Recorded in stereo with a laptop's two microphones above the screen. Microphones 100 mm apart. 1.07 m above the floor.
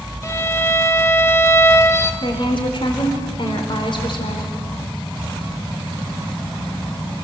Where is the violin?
30° left (ahead or behind), 0.9 m.